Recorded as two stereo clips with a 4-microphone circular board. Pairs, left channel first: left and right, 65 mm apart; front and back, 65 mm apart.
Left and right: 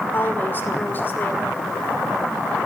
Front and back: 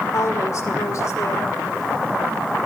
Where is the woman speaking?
30° left, 1.9 m.